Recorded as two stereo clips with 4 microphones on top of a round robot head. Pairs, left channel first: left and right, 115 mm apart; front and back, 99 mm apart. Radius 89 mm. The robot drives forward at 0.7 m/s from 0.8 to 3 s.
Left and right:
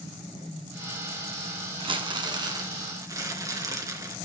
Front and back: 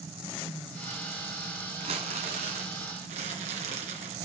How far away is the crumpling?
About 1.2 m.